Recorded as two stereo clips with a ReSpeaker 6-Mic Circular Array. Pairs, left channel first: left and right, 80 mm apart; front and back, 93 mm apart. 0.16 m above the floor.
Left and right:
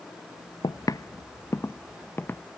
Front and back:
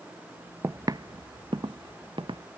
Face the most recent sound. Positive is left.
turn(degrees=150)